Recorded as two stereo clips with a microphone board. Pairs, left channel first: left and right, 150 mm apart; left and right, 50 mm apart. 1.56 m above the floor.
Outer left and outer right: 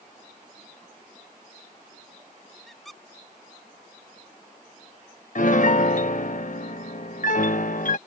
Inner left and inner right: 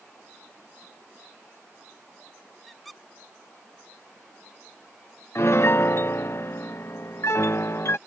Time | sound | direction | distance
2.7 | a squeak | centre (ahead or behind) | ?
5.3 | a piano | 60° left (ahead or behind) | ?